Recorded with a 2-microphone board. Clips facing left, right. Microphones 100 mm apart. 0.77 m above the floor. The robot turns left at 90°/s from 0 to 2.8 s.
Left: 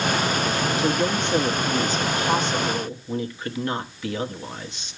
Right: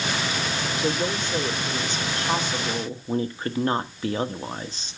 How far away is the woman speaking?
About 1.2 m.